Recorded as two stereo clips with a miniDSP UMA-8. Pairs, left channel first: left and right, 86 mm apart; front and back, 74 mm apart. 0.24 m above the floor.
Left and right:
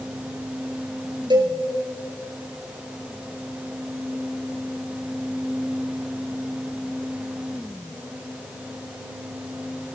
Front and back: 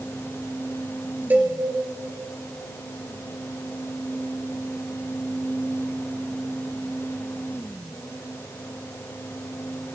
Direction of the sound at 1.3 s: 115° right.